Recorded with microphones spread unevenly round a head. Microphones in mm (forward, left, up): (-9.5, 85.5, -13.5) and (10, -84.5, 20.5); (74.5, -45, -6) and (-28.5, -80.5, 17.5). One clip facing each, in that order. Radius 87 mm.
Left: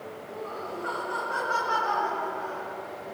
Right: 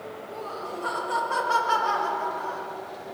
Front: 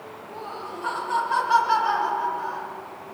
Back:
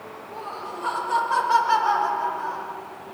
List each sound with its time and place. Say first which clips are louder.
0.3 s laughter: even, back 1 dB; 115° right, 7.5 m; by 2.7 s 130° right, 7 m